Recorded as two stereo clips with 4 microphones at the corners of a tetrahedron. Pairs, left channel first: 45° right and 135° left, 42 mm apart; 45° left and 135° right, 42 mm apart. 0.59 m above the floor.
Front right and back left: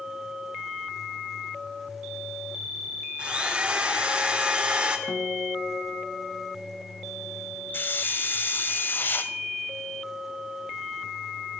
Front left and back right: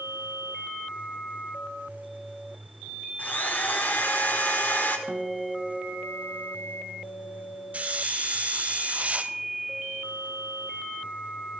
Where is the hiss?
80° right, 0.9 m.